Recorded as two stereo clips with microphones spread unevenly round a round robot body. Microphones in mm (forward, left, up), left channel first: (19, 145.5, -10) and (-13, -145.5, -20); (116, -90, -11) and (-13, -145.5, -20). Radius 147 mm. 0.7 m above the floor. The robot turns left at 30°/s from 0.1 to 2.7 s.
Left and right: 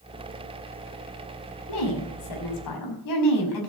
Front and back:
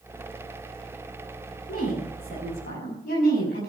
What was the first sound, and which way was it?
A woman speaking, 90° left.